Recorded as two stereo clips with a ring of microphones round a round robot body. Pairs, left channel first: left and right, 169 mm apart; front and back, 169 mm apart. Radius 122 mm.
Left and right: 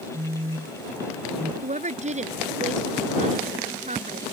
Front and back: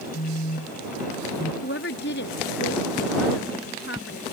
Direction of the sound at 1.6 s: 45° right.